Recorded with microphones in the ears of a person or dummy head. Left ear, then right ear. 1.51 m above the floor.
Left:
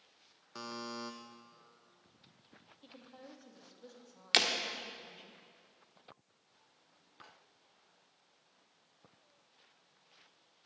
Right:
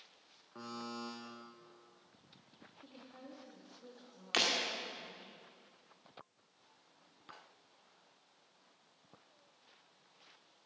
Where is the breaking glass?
35° left (ahead or behind), 1.8 m.